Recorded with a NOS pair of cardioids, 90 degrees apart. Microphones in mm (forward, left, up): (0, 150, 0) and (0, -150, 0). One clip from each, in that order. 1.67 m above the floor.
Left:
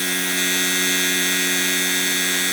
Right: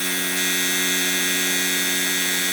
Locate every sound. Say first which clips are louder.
0.0 s a machine running: left 2 dB; 15° left